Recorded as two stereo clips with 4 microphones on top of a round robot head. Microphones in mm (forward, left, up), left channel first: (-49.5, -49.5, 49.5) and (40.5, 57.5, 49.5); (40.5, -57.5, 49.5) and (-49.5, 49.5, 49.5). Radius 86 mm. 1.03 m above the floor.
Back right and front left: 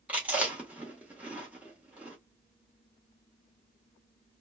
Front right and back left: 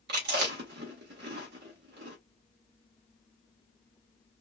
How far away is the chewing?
About 1.6 m.